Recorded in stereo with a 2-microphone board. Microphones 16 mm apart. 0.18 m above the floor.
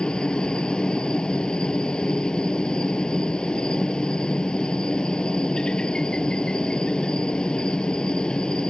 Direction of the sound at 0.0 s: 70° left (ahead or behind).